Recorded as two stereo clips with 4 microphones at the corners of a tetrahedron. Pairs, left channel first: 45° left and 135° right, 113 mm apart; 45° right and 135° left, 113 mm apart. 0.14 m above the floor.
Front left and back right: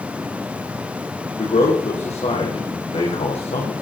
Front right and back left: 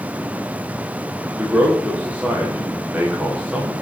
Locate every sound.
1.4 s a man speaking: 60° left, 8 m